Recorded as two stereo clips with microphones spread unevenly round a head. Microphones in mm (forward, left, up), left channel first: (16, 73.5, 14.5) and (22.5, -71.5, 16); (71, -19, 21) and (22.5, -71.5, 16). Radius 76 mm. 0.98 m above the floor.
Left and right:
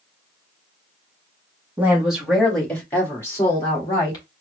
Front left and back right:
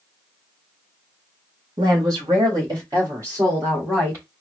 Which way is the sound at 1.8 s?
165° right.